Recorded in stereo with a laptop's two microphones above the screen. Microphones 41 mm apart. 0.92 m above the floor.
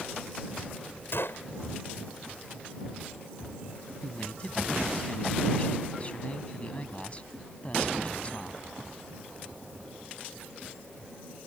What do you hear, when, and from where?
1.1 s a gunshot: 70° left (ahead or behind)
4.0 s a man speaking: 30° left (ahead or behind)